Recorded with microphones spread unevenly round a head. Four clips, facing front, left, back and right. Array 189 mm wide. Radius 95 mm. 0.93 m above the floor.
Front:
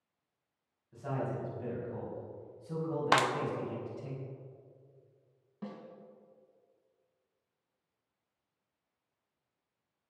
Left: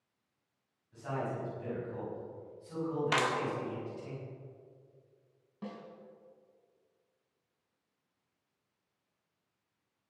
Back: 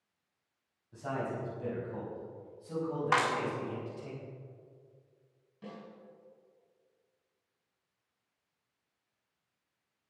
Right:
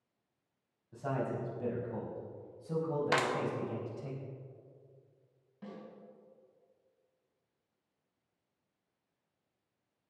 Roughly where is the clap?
Ahead right.